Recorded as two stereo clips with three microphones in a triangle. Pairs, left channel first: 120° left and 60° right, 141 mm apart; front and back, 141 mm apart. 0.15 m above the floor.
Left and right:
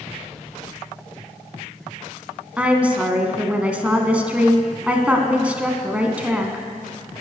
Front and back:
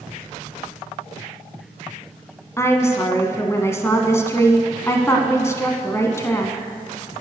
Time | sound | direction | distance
2.6 | a woman speaking | 5° left | 1.1 m